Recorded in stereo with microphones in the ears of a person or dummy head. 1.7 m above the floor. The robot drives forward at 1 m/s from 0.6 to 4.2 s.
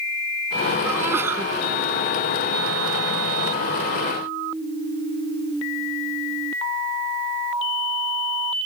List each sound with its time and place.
0.8 s a sneeze: 10° right (ahead or behind)